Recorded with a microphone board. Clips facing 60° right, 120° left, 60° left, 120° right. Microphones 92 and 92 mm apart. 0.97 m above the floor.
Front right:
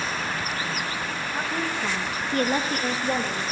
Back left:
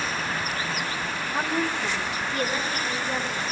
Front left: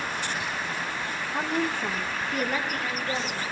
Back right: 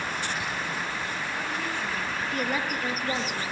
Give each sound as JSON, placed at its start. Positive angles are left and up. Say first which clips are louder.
{"t": 1.3, "sound": "a woman speaking", "louder": "back left 3 dB, front left 8 dB", "azimuth_deg": 55, "distance_m": 1.1}